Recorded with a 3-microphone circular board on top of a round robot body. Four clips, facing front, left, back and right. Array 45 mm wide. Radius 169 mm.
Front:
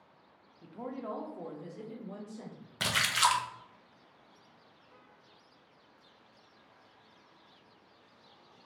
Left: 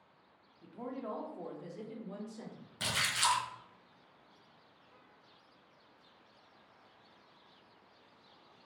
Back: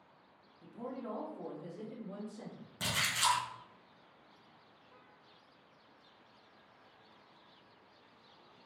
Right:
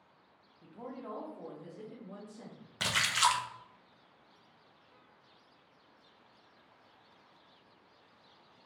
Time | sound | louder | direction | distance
0.6 | a woman speaking | left 3 dB, front 3 dB | straight ahead | 1.0 m
2.8 | a splash | right 4 dB, front 5 dB | 45° right | 0.6 m